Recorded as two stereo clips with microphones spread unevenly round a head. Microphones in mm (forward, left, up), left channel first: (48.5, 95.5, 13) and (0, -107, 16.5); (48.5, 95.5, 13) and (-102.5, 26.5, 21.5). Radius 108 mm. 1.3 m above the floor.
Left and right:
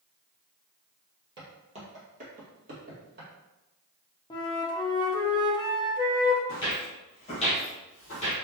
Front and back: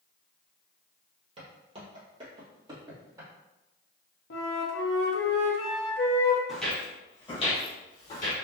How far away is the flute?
About 0.6 m.